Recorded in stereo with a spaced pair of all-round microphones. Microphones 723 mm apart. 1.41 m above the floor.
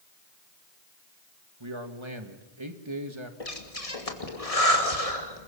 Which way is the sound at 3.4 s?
50° left (ahead or behind).